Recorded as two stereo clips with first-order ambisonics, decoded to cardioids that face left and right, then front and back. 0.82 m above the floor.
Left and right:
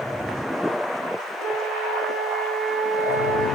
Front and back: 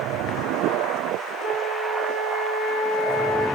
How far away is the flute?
About 1.9 m.